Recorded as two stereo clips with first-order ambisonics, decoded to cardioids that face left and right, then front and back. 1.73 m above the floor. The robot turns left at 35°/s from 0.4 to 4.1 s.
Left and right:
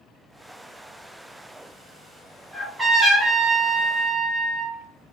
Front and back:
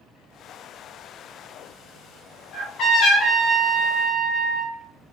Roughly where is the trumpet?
Ahead.